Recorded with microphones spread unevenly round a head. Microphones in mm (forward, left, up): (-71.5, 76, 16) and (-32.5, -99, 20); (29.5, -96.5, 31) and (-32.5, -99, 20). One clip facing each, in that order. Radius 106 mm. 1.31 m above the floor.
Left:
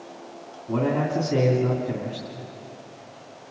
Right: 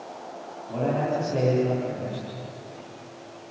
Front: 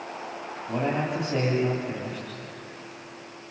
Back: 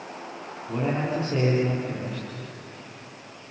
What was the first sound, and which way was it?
A man speaking, 65° left.